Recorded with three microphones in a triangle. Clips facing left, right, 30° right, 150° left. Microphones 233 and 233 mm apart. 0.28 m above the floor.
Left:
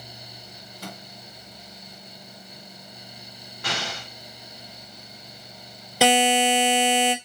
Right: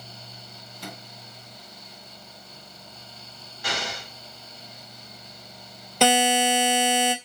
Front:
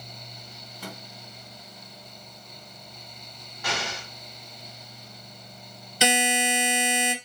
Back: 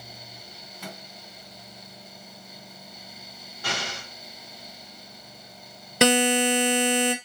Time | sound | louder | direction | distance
0.8 | a microwave | left 1 dB, front 1 dB | 70° left | 1.8 m
3.6 | an explosion | even, front 1 dB | 100° left | 1.8 m
6.0 | a buzzer | left 1 dB, back 6 dB | 175° left | 0.9 m